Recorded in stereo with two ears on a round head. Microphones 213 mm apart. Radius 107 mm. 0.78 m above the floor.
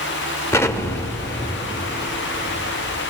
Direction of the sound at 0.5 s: 10° left (ahead or behind).